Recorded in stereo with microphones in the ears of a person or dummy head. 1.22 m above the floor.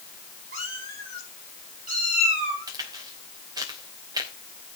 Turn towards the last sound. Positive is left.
turn(degrees=-25)  # may be behind; listen again after turning